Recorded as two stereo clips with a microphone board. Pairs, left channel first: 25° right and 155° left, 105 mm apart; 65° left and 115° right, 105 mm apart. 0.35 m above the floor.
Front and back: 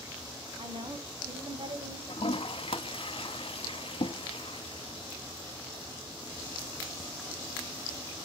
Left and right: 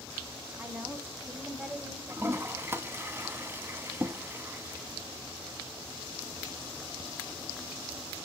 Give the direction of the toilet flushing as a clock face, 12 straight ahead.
2 o'clock.